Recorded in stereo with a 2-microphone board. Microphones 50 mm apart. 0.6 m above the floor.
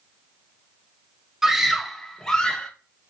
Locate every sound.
1.4 s a scream: 10° right (ahead or behind), 0.7 m; by 2.7 s 20° left (ahead or behind), 1.0 m